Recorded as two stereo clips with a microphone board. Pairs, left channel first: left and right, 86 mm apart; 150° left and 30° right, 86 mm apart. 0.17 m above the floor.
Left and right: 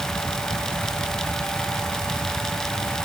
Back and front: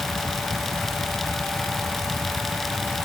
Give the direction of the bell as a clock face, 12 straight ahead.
No bell in this recording.